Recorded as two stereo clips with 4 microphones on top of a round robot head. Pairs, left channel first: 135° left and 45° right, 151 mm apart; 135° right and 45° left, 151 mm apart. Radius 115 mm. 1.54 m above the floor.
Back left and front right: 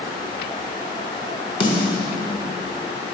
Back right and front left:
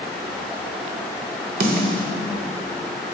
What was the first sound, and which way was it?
A snare drum, 75° left.